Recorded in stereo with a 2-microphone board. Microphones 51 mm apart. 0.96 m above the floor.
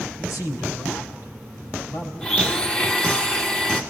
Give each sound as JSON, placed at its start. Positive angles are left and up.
{"t": 0.2, "sound": "a man speaking", "side_deg": 80, "distance_m": 7.0}
{"t": 2.2, "sound": "a blender", "side_deg": 20, "distance_m": 1.6}